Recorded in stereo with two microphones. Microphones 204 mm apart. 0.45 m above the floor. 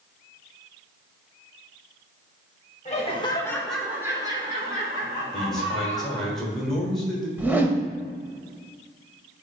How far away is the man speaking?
About 1.3 m.